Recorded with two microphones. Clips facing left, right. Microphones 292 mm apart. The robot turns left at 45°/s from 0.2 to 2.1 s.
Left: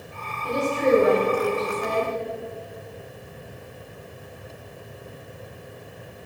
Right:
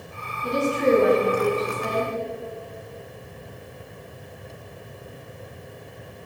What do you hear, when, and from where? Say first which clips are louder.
0.4 s a woman speaking: right 1 dB; 85° right, 2.5 m; by 2.1 s 160° right, 2.5 m